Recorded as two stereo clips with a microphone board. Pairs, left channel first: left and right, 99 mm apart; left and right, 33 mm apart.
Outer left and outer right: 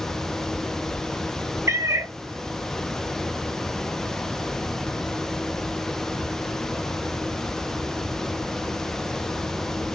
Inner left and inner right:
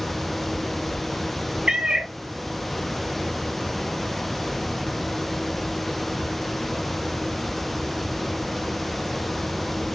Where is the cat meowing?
30° right (ahead or behind), 0.5 m.